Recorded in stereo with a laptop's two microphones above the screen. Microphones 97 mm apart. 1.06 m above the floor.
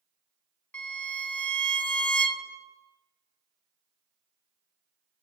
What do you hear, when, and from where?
0.7 s a violin: 15° left (ahead or behind), 1.0 m